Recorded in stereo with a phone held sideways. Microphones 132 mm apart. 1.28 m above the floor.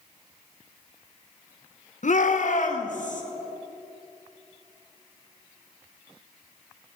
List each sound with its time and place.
2.0 s a shout: 70° left (ahead or behind), 1.0 m; by 3.2 s 75° left (ahead or behind), 1.8 m